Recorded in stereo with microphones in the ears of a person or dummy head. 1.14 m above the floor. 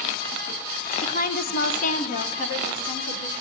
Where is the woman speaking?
30° left (ahead or behind), 0.8 m; by 3.4 s 35° left (ahead or behind), 1.8 m.